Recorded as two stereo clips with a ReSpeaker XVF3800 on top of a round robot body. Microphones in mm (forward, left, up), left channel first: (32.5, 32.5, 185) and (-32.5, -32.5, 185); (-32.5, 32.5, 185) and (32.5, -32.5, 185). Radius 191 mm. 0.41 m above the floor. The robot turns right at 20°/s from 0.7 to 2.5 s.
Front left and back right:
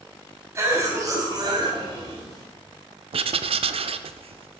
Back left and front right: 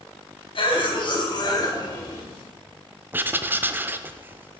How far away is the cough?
About 3.5 m.